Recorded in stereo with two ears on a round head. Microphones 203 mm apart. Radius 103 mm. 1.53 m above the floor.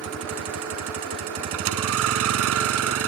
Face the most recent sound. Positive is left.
turn(degrees=-65)  # may be behind; listen again after turning